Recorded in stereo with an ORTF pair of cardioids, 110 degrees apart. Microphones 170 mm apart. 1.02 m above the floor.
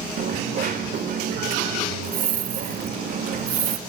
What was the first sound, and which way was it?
A dropped coin, 60° right.